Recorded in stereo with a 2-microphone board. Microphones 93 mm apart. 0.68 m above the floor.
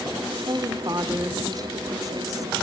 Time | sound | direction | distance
0.5 | a woman speaking | 40° right (ahead or behind) | 1.8 m